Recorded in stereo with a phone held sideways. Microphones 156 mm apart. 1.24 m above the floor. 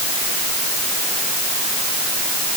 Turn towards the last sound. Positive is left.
No sound to turn to.